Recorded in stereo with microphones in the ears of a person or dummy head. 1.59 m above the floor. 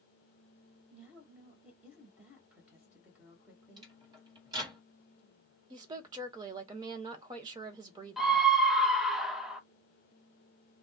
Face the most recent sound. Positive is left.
turn(degrees=5)  # may be behind; listen again after turning